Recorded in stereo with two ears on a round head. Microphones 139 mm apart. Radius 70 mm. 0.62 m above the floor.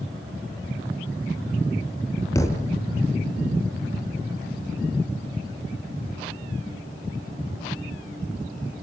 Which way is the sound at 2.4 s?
20° left (ahead or behind).